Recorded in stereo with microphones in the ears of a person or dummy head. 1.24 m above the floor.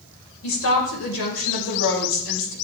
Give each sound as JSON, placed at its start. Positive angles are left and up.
{"t": 0.4, "sound": "a woman speaking", "side_deg": 80, "distance_m": 5.5}